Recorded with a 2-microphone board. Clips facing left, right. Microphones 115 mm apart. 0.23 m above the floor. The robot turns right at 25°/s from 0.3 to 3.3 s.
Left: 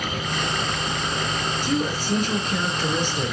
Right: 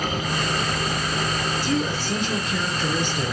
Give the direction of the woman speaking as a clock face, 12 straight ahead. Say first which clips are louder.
Left 1 dB; 8 o'clock.